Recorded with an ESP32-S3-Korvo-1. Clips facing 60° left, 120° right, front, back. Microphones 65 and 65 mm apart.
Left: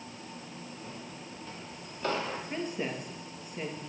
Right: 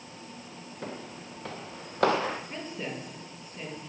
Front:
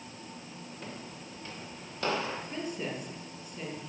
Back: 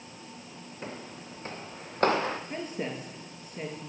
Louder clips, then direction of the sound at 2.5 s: Left 2 dB, back 1 dB; 130° left.